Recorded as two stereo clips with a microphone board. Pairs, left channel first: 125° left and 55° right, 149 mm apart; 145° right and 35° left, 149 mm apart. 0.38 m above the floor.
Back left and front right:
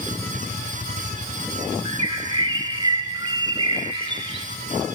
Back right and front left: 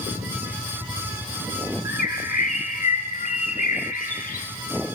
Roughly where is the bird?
Right.